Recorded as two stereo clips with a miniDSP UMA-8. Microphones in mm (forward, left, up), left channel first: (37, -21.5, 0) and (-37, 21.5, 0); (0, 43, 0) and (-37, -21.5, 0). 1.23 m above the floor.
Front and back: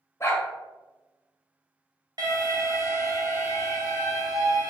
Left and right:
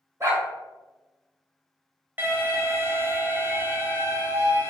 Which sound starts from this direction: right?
A dog barking, at 0.2 s.